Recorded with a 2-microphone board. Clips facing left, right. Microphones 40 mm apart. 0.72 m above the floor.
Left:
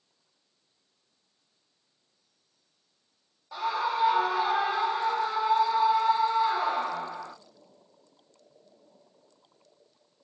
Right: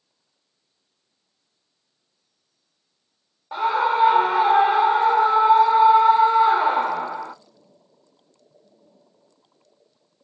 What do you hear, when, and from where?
3.5 s a scream: 40° right (ahead or behind), 0.9 m